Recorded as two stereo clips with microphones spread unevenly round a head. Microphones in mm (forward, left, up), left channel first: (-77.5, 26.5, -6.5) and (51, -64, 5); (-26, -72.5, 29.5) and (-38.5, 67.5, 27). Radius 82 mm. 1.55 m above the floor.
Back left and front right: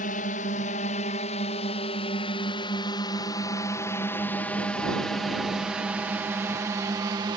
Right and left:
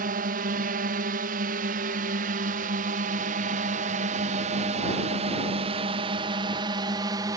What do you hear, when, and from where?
0.0 s a drone: 105° left; by 7.4 s 30° left